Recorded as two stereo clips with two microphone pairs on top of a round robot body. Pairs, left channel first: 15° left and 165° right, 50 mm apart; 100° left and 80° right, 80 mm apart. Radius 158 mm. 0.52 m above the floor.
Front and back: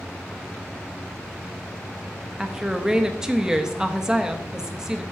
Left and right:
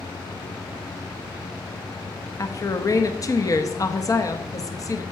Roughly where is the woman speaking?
Behind left.